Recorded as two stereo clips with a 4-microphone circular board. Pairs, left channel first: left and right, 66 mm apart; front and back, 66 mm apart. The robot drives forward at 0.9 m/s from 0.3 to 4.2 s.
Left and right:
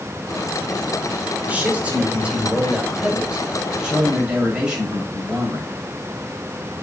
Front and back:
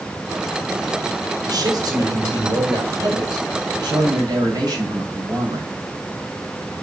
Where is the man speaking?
160° right, 4.5 m; by 5.7 s 165° right, 6.5 m.